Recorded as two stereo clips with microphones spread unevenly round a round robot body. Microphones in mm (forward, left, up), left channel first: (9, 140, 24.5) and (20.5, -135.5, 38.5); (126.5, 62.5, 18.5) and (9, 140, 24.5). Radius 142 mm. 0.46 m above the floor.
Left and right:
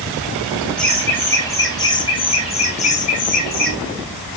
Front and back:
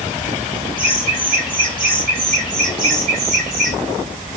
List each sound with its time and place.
0.8 s laughter: straight behind, 3.5 m; by 3.8 s 145° left, 3 m